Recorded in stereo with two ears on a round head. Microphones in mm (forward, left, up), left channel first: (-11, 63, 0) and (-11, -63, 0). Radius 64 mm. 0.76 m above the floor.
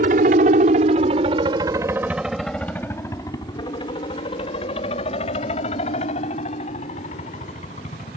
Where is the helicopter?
60° right (ahead or behind); by 8.2 s 50° left (ahead or behind).